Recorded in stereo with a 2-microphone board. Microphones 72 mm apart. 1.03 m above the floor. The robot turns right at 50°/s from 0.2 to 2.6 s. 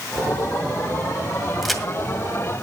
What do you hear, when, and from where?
1.6 s a crack: 5° right (ahead or behind), 2.0 m; by 1.8 s 5° left (ahead or behind), 2.0 m